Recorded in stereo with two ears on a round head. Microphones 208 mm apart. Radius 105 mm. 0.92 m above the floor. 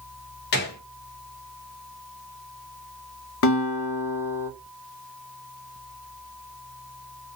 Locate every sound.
0.5 s a gunshot: 45° left (ahead or behind), 0.6 m
3.4 s a guitar: 55° left (ahead or behind), 0.6 m